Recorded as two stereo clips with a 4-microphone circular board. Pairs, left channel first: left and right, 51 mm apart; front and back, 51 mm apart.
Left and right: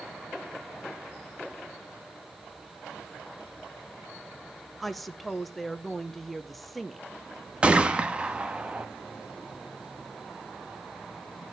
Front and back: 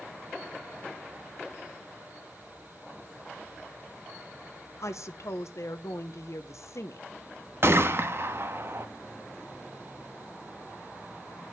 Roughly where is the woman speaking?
Ahead.